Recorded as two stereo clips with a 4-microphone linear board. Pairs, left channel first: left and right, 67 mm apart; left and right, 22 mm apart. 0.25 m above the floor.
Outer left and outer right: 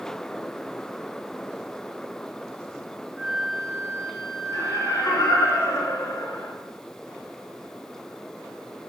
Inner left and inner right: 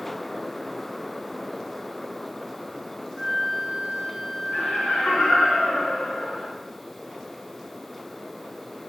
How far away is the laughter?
About 4 m.